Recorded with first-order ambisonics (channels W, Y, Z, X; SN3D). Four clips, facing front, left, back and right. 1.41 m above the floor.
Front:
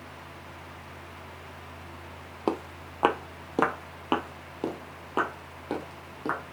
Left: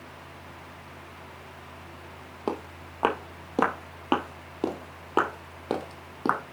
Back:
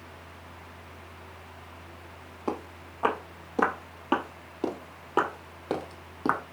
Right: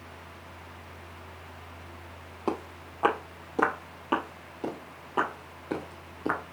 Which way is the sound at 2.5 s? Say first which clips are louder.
Even, front 3 dB; 15° left.